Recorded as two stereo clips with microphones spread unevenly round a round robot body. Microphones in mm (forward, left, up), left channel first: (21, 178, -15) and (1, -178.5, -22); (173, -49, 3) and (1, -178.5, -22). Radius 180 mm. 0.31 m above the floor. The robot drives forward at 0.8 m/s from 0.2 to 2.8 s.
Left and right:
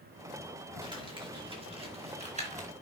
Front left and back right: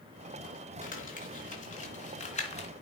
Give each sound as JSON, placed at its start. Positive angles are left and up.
{"t": 0.8, "sound": "crumpling", "azimuth_deg": -15, "distance_m": 4.5}